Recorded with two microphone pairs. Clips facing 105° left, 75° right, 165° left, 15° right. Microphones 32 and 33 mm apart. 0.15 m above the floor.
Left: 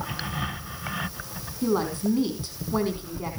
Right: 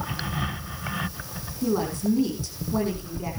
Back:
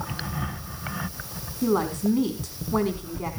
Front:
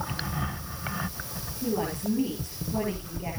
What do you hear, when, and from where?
1.6 s a woman speaking: 155° left, 6 m